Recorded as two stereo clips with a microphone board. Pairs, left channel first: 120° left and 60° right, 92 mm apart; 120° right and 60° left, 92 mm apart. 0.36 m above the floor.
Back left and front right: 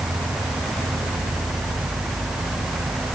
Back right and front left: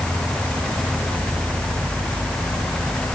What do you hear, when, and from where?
0.0 s an insect: 10° right